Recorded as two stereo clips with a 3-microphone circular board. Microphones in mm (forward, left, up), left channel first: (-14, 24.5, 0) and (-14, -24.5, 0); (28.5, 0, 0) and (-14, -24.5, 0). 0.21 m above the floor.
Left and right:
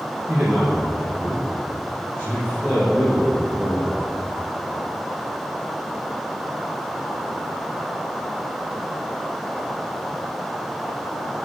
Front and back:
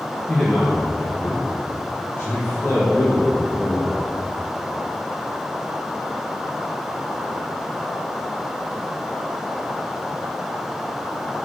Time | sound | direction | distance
0.3 | a man speaking | 40° right | 4 m